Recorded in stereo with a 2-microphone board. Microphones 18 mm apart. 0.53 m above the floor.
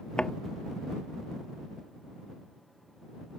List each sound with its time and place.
0.2 s a thud: 70° left (ahead or behind)